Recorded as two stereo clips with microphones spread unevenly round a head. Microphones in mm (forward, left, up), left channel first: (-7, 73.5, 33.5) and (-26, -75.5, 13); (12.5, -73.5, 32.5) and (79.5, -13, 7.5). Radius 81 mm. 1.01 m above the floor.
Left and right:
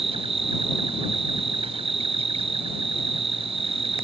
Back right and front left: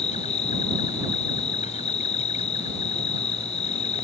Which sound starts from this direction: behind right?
An insect, at 0.0 s.